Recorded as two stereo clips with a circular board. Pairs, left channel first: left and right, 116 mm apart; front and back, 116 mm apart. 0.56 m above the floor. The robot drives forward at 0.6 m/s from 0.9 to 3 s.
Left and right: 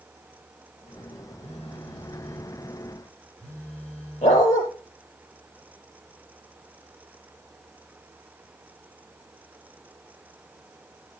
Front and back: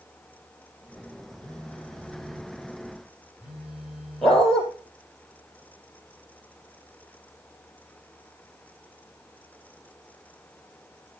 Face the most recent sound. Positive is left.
turn(degrees=85)